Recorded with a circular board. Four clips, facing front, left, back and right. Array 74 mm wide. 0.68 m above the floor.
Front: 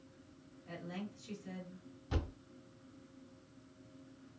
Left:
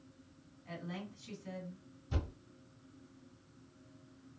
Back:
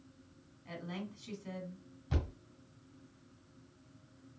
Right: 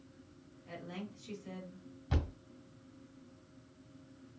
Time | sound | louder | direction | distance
0.7 | a woman speaking | even, back 2 dB | 165° left | 1.7 m
2.1 | a thud | right 3 dB, back 1 dB | 95° right | 1.6 m